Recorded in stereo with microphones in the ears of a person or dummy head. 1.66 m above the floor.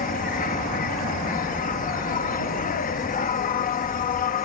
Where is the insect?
45° left (ahead or behind).